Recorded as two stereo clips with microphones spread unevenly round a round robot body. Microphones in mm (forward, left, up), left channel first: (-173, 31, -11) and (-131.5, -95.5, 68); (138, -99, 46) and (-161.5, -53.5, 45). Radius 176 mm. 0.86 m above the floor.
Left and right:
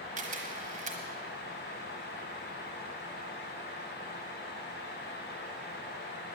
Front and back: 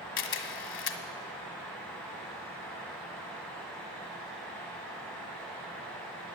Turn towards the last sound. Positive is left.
turn(degrees=-15)